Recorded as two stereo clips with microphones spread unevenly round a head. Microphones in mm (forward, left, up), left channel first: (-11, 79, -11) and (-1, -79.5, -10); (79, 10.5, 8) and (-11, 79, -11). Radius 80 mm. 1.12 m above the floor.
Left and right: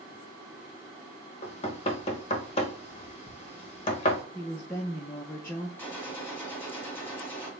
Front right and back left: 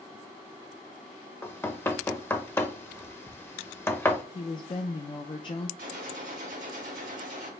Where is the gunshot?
170° left, 1.9 m.